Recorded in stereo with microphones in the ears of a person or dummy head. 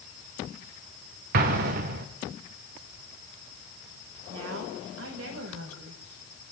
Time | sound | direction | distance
1.3 | an explosion | 50° right (ahead or behind) | 1.8 m
4.3 | a woman speaking | 80° right | 5 m